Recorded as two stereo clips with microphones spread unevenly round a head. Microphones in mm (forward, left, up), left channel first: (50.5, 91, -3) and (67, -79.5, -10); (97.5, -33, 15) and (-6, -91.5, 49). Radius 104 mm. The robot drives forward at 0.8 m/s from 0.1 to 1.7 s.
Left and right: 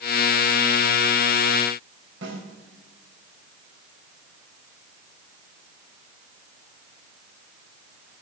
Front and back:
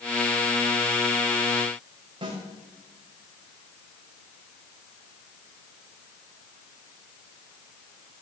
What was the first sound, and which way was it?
A snare drum, 105° right.